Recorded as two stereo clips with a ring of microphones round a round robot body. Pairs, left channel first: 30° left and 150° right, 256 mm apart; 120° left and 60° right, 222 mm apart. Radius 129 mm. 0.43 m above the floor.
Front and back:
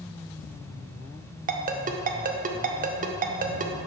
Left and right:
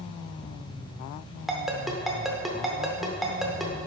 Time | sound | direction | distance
1.5 | a ringtone | 150° right | 0.7 m